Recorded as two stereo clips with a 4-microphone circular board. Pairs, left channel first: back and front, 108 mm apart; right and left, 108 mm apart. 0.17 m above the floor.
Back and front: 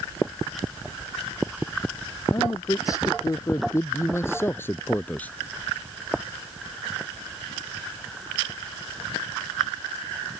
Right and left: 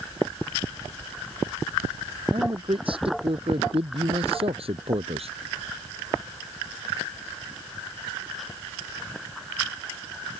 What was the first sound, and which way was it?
A man speaking, 125° left.